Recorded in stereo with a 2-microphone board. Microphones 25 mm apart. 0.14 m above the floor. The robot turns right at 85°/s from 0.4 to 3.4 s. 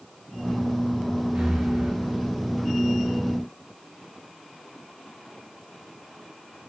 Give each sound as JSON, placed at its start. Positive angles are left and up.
{"t": 1.4, "sound": "breathing", "azimuth_deg": -115, "distance_m": 7.5}